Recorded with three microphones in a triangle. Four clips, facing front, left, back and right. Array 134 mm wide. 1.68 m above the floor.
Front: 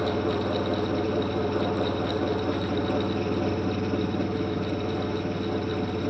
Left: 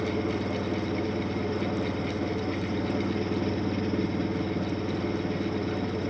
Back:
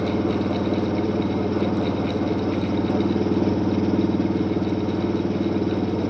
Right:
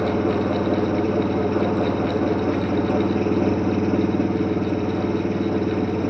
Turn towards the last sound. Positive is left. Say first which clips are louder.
# right 8 dB, back 4 dB
turn(degrees=-145)